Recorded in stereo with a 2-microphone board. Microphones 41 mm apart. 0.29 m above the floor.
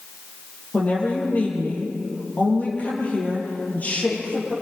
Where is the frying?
No frying in this recording.